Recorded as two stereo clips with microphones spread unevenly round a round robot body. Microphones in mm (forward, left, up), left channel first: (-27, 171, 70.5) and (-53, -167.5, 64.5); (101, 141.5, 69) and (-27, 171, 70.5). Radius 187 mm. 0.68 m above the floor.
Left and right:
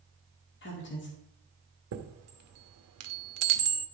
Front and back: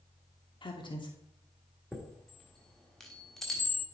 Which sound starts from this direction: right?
A chime, at 1.9 s.